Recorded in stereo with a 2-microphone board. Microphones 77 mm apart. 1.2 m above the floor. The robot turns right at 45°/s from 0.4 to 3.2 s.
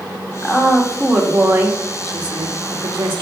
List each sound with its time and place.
0.4 s a woman speaking: 155° left, 2 m; by 3.2 s 80° right, 2 m